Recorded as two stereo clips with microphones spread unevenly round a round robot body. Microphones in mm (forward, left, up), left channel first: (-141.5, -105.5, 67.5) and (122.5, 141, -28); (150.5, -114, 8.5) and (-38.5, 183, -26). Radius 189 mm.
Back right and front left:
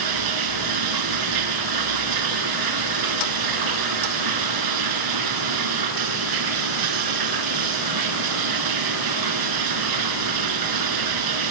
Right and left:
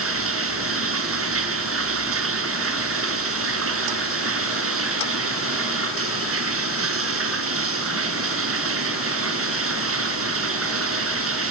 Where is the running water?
70° left, 2 m.